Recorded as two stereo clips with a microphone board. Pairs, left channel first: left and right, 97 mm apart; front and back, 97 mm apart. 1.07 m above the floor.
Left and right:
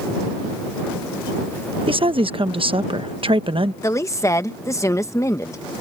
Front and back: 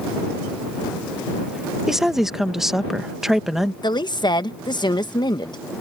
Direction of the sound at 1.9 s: 95° right.